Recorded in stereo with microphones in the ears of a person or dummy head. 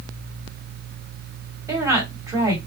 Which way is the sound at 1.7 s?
15° right (ahead or behind).